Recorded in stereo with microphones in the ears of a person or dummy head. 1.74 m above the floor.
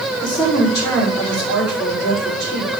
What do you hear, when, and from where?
0.2 s a woman speaking: 20° left (ahead or behind), 4.5 m